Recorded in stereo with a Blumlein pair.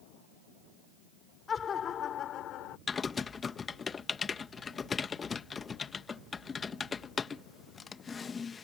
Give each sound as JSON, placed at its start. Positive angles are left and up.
{"t": 1.5, "sound": "laughter", "azimuth_deg": 20}
{"t": 2.9, "sound": "typing on a keyboard", "azimuth_deg": 15}